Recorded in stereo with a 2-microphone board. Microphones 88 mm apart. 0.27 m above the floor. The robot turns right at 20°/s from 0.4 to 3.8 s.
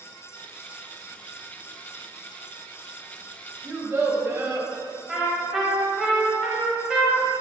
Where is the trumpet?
5° right (ahead or behind), 0.6 m.